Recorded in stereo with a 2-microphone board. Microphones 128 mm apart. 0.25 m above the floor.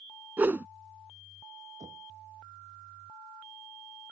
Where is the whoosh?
15° right (ahead or behind).